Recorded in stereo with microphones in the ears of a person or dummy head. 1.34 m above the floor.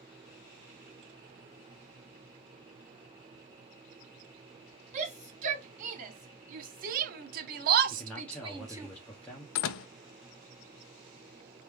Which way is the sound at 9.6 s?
75° left (ahead or behind).